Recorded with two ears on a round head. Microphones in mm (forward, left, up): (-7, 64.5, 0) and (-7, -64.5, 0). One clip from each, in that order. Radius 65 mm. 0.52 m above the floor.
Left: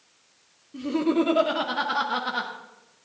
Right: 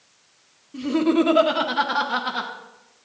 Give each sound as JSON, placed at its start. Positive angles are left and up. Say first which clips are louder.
{"t": 0.7, "sound": "laughter", "louder": "right 4 dB", "side_deg": -20, "distance_m": 1.0}